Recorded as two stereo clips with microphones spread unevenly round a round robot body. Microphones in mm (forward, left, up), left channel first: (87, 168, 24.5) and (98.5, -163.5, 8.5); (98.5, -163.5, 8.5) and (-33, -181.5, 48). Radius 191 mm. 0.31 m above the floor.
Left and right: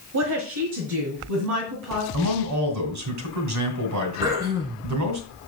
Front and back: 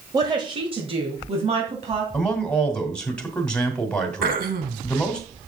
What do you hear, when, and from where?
0.1 s a woman speaking: 100° right, 1.3 m; by 2.0 s 130° right, 2.5 m
2.1 s a man speaking: 65° right, 2.5 m
4.2 s throat clearing: 170° right, 0.8 m